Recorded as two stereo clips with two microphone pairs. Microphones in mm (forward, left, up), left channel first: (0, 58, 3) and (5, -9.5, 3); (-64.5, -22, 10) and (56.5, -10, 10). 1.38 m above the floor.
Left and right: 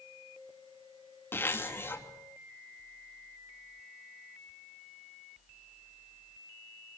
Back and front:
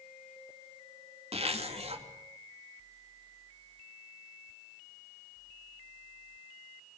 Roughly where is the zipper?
Ahead left.